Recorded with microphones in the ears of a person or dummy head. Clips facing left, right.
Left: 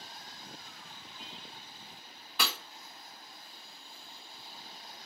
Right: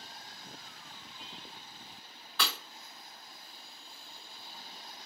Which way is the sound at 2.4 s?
15° left (ahead or behind).